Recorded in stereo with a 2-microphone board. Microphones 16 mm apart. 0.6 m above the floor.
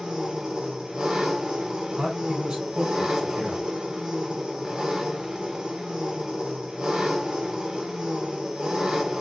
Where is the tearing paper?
I don't hear tearing paper.